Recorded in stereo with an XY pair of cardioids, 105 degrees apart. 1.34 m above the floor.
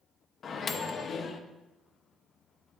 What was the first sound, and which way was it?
A microwave, 50° left.